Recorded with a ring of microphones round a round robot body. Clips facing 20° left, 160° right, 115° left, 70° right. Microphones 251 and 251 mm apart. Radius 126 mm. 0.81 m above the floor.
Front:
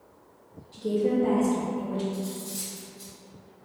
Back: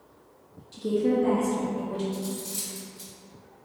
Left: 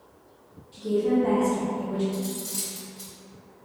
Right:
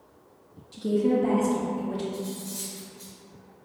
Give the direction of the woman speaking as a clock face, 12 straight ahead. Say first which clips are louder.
Back 1 dB, even; 3 o'clock.